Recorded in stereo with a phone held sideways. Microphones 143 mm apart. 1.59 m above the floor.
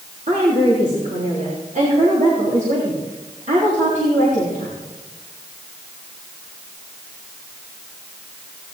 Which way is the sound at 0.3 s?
65° right (ahead or behind).